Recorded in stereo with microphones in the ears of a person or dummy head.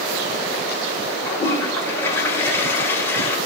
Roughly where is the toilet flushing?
Centre.